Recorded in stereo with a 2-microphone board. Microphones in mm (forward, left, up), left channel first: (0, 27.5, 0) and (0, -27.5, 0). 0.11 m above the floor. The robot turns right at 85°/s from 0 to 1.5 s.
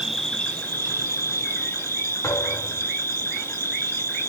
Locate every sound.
0.0 s an insect: 10° right, 1.1 m; by 4.3 s 115° left, 1.1 m
2.2 s a thud: 80° left, 6.5 m